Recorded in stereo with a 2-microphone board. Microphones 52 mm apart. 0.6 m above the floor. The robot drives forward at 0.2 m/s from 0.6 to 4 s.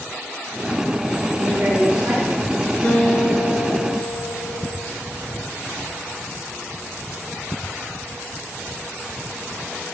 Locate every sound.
1.3 s a woman speaking: 45° right (ahead or behind), 1.6 m; by 2.5 s 40° right (ahead or behind), 1.7 m
2.8 s a guitar: 45° left (ahead or behind), 0.9 m; by 4.9 s 50° left (ahead or behind), 0.7 m